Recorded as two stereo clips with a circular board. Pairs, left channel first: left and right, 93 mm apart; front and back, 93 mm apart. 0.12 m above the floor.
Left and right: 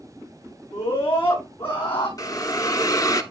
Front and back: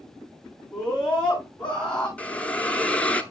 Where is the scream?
85° left, 8 m.